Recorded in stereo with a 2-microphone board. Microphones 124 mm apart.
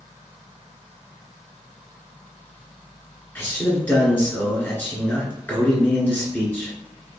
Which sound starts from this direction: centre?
A man speaking, at 3.4 s.